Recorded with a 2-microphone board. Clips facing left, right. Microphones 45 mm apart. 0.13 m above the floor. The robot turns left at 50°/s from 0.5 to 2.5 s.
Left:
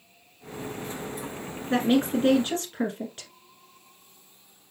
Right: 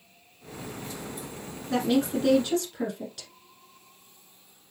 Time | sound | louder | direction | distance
1.7 | a woman speaking | left 2 dB | 105° left | 1.4 m